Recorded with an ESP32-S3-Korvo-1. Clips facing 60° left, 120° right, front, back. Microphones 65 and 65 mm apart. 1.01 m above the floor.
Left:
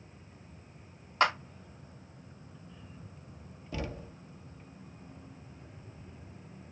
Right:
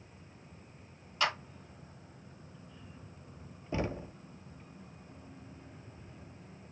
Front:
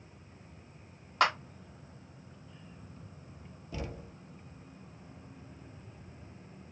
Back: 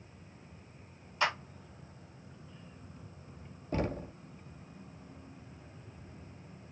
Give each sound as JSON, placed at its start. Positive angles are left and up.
{"t": 1.2, "sound": "a clap", "azimuth_deg": 20, "distance_m": 1.9}
{"t": 3.7, "sound": "knocking", "azimuth_deg": -170, "distance_m": 0.6}